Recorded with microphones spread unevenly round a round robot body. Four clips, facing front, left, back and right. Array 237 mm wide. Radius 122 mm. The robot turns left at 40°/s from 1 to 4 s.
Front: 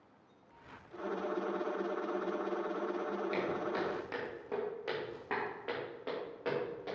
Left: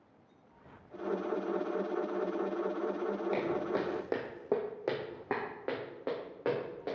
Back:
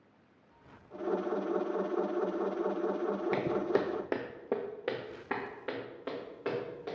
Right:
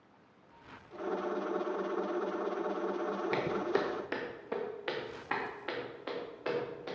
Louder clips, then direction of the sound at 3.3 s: Right 2 dB, back 7 dB; 140° right.